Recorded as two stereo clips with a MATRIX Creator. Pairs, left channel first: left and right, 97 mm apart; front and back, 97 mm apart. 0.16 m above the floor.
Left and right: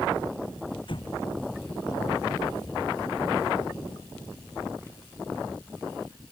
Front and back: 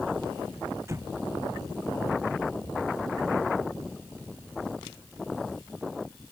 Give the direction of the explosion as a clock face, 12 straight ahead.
8 o'clock.